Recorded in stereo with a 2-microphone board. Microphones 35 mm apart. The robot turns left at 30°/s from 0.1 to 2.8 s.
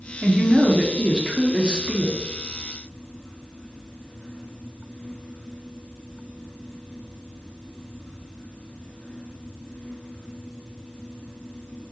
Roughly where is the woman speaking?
Centre.